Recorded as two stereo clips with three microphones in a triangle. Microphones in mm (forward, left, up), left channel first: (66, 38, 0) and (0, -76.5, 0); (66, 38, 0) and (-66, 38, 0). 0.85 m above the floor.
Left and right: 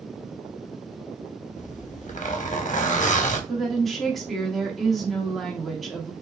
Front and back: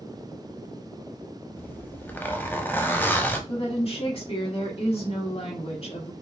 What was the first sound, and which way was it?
A zipper, 75° left.